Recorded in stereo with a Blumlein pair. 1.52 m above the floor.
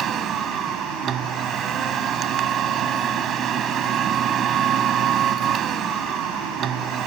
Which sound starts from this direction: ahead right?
A machine running, at 0.0 s.